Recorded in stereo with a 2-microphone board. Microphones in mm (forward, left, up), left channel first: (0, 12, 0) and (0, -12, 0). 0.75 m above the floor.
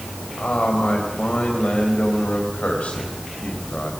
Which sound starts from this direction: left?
A man speaking, at 0.4 s.